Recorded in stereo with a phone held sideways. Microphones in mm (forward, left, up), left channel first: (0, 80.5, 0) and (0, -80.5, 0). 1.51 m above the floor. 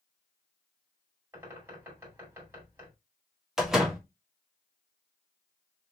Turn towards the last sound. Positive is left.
turn(degrees=-5)  # may be behind; listen again after turning